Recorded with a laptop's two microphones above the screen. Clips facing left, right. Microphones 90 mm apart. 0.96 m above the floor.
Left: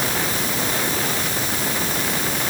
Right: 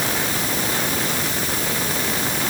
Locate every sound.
Only background noise.